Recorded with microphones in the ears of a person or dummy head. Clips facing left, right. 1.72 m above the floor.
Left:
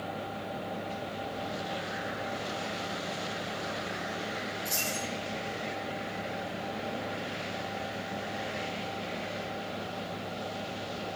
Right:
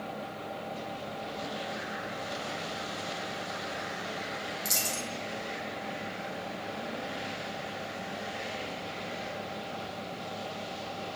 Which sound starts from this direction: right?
A dropped coin, at 4.7 s.